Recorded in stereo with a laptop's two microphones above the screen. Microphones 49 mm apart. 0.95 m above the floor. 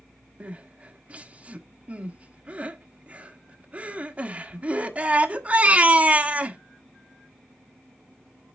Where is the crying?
30° right (ahead or behind), 1.3 m.